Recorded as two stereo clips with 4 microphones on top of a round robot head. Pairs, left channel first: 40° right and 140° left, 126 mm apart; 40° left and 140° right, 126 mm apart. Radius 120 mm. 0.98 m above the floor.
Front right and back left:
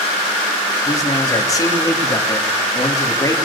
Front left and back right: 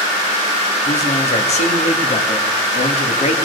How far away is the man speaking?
About 2 m.